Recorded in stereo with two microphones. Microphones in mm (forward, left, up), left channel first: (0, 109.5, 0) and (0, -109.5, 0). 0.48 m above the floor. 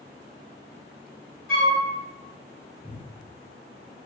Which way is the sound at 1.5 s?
75° left (ahead or behind).